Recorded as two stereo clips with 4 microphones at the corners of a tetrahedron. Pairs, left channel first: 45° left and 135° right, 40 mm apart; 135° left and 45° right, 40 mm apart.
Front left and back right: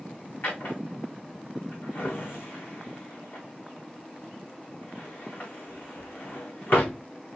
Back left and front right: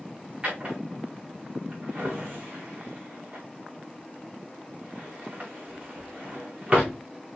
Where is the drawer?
20° left, 4.5 m.